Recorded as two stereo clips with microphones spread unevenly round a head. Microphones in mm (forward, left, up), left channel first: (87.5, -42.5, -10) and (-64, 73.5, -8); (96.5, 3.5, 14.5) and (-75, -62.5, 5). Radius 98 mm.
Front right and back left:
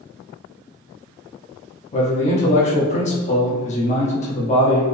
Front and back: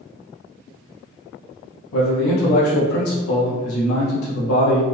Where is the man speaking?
20° left, 0.7 m.